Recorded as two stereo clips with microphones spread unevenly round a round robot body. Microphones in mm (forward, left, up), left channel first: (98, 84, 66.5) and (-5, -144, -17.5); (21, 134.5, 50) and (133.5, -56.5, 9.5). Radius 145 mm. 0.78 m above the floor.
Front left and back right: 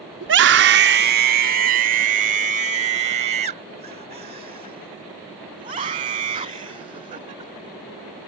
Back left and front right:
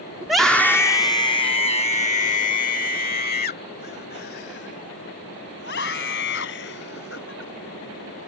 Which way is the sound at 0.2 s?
140° right.